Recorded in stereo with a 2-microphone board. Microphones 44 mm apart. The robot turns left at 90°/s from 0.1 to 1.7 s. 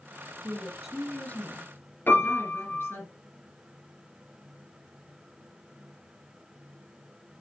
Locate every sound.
0.4 s a woman speaking: 145° right, 3.5 m; by 3.1 s 105° left, 3.5 m
2.1 s a piano: 50° left (ahead or behind), 2 m